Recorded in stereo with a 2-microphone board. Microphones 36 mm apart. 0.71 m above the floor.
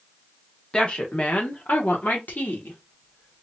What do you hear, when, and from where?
0.7 s a woman speaking: 25° left (ahead or behind), 1.0 m; by 3.4 s 75° left (ahead or behind), 1.8 m